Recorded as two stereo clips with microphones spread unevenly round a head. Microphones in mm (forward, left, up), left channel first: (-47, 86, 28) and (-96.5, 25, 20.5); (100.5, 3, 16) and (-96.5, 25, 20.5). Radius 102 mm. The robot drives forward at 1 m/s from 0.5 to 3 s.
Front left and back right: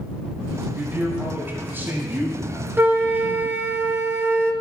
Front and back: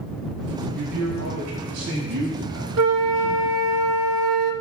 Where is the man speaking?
170° left, 5.5 m.